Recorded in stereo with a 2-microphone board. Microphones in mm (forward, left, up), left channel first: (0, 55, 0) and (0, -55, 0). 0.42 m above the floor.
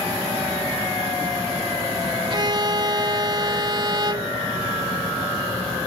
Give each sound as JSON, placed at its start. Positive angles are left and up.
{"t": 2.3, "sound": "a violin", "side_deg": -40}